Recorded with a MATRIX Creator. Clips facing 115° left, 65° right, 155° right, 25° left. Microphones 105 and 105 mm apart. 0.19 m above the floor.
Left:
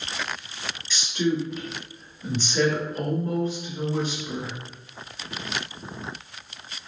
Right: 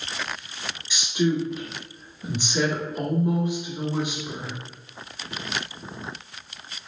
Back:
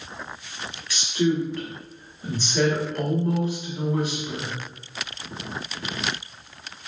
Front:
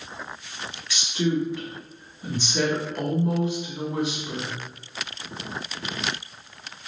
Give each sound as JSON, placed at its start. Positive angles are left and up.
{"t": 0.9, "sound": "a woman speaking", "azimuth_deg": -20, "distance_m": 1.2}